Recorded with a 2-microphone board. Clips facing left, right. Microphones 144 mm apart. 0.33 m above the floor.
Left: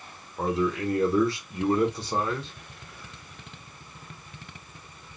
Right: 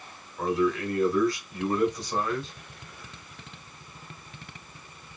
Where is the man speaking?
25° left (ahead or behind), 1.0 m.